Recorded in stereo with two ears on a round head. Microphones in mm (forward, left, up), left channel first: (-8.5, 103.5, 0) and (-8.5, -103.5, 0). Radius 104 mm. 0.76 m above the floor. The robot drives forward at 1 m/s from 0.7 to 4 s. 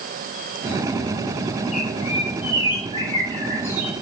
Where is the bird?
30° left (ahead or behind), 1.1 m; by 4.0 s 10° left (ahead or behind), 2.5 m.